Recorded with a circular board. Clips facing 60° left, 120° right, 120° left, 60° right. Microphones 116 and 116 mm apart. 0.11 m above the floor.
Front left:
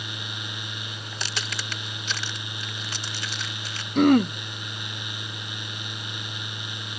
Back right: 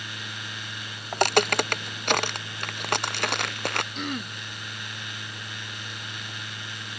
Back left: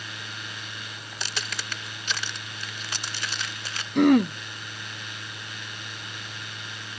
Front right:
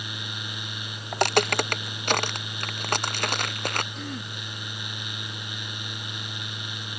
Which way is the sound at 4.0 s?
95° left.